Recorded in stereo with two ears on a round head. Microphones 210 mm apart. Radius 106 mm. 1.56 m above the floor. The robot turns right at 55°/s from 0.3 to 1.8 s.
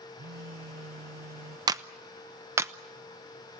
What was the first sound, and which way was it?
A phone buzzing, 135° right.